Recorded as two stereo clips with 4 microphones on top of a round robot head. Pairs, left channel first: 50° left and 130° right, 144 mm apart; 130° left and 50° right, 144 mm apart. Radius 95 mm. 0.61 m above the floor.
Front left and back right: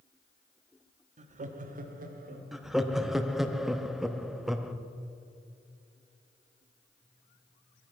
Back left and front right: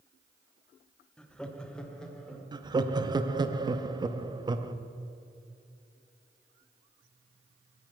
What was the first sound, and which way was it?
Laughter, 145° right.